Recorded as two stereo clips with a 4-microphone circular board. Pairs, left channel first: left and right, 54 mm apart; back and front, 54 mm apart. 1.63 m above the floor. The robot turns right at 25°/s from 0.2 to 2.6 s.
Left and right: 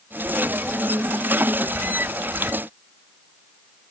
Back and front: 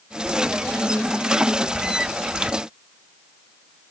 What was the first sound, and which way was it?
Only background noise.